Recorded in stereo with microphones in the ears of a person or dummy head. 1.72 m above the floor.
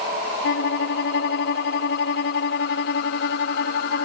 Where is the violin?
60° left (ahead or behind).